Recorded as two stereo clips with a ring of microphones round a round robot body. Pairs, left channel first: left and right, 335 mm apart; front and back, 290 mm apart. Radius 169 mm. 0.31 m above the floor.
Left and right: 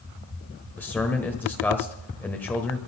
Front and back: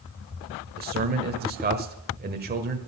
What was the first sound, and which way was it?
A man speaking, 170° left.